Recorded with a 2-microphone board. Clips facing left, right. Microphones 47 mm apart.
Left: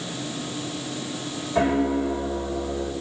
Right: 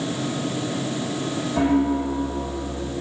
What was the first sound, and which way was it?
A piano, 45° left (ahead or behind).